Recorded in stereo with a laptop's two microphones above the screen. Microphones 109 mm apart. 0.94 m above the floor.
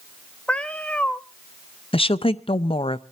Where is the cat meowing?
10° left (ahead or behind), 0.8 m.